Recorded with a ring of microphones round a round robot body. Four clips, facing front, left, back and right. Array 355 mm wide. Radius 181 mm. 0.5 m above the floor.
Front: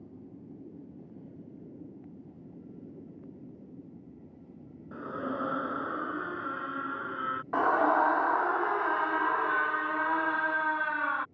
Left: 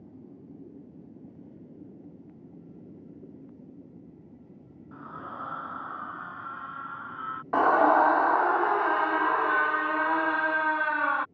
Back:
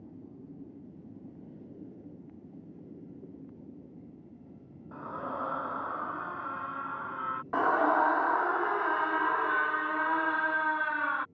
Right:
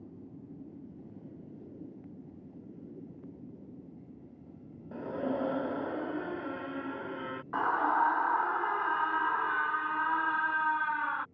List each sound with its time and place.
4.9 s a scream: 55° right
7.5 s a scream: 95° left